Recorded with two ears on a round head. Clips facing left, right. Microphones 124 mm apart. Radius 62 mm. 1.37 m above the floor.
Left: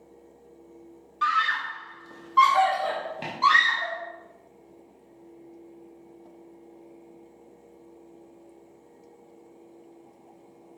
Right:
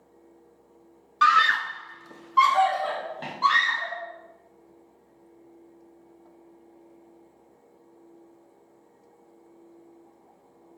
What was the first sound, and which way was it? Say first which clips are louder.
A scream: right 5 dB; 75° right (ahead or behind).